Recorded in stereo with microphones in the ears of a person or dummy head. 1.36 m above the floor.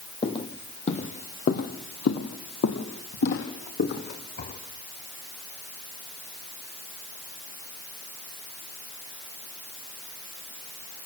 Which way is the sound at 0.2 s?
30° left (ahead or behind).